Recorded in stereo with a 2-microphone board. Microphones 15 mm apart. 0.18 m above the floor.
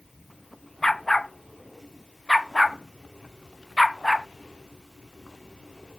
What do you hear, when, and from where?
0.8 s a dog barking: 35° left (ahead or behind)